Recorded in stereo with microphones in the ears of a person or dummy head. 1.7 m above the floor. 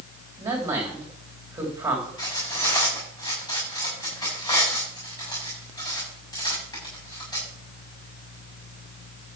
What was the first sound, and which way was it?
A man speaking, 10° right (ahead or behind).